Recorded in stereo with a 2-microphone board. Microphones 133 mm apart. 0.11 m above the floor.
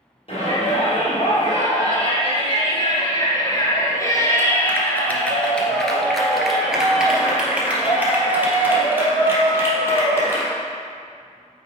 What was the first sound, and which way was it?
A shout, 45° left (ahead or behind).